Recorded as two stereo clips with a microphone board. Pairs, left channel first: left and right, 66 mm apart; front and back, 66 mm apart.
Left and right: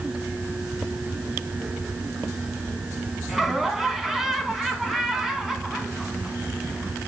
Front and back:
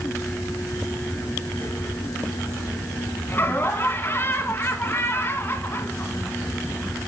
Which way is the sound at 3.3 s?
5° right.